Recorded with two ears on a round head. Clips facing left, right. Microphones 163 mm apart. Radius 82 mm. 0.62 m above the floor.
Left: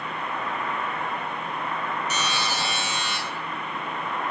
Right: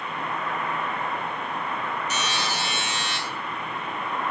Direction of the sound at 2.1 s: 70° left (ahead or behind).